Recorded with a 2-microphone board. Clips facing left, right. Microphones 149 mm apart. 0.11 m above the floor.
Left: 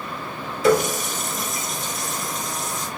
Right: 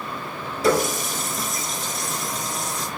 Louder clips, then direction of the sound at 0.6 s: Left 2 dB; 35° right (ahead or behind).